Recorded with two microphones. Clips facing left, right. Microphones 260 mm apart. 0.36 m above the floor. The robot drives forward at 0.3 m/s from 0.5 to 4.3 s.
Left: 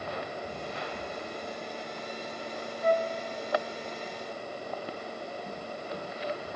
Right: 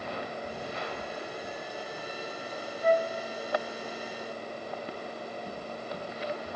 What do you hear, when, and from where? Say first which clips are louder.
2.8 s a flute: right 1 dB; 10° right (ahead or behind), 0.5 m; by 3.1 s 15° right (ahead or behind), 0.5 m